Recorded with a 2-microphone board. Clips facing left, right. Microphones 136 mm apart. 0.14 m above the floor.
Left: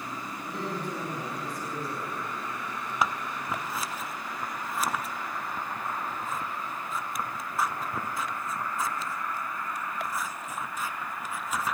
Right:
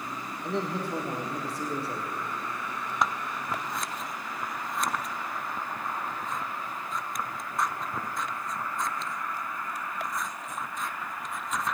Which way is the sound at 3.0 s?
5° left (ahead or behind).